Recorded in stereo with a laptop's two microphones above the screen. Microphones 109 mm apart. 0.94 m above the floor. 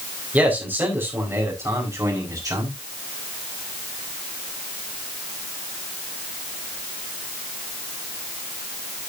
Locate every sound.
0.3 s a man speaking: 15° right (ahead or behind), 4 m; by 2.7 s 35° right (ahead or behind), 4.5 m